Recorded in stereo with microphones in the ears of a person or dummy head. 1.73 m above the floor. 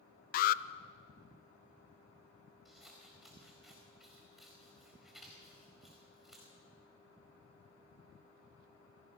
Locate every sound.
0.3 s an alarm: 50° left (ahead or behind), 0.6 m
2.6 s scissors: centre (ahead or behind), 4.5 m